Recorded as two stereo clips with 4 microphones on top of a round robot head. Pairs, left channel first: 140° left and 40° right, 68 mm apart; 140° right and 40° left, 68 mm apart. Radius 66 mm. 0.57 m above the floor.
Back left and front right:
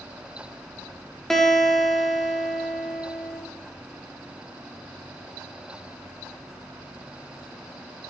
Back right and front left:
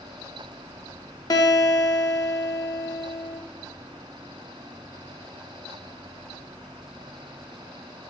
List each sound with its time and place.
1.3 s a guitar: 140° right, 1.5 m